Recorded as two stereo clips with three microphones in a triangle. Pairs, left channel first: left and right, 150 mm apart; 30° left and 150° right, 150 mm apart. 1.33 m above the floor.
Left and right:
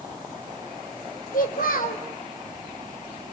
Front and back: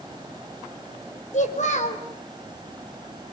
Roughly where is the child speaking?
Ahead left.